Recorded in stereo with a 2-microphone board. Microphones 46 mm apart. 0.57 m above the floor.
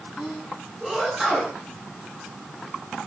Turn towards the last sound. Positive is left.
turn(degrees=-5)  # may be behind; listen again after turning